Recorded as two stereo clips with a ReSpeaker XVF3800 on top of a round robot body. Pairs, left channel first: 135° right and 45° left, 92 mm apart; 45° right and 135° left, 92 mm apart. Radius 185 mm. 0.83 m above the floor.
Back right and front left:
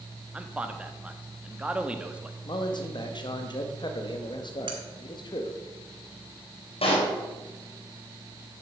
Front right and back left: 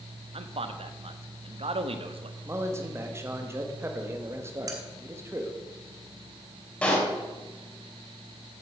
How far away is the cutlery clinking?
About 1.6 m.